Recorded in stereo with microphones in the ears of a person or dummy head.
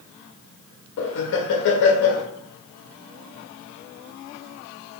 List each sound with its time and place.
1.0 s laughter: 60° left (ahead or behind), 0.5 m